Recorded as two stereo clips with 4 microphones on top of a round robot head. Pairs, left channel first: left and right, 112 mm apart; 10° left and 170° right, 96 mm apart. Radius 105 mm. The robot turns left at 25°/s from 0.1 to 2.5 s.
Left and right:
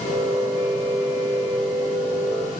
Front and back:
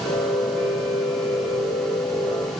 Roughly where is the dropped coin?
I don't hear a dropped coin.